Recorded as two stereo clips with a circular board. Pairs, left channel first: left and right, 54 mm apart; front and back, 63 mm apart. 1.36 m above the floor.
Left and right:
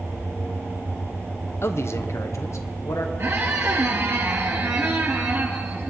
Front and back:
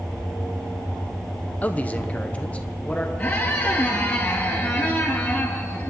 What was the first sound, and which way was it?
A man speaking, 60° left.